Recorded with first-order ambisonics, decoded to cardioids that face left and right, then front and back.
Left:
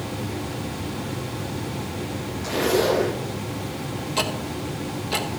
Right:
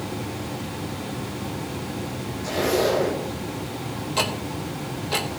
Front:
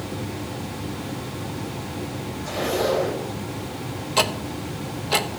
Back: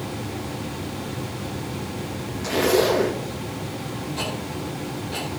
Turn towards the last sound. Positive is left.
turn(degrees=5)